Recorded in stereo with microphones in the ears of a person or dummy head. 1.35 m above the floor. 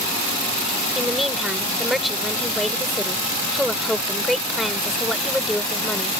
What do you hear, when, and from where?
0.9 s a woman speaking: centre (ahead or behind)